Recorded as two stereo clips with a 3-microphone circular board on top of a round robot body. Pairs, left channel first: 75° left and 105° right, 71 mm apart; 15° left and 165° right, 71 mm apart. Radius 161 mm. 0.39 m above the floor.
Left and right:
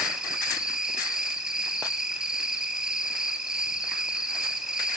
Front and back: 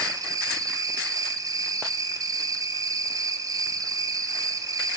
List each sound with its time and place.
0.0 s an insect: 175° left, 0.7 m